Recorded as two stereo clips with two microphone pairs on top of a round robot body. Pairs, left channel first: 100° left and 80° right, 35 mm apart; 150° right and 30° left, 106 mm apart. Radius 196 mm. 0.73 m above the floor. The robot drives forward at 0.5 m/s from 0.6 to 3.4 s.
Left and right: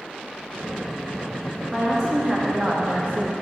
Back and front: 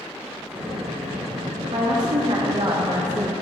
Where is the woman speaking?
10° right, 1.6 m; by 3.3 s 20° right, 0.8 m.